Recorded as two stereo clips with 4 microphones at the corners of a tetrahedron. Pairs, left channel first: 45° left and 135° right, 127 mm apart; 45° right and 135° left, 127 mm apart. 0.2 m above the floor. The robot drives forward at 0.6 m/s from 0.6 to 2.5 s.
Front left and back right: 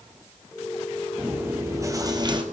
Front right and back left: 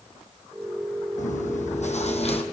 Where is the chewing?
60° right, 1.7 m; by 2.4 s 85° right, 1.5 m.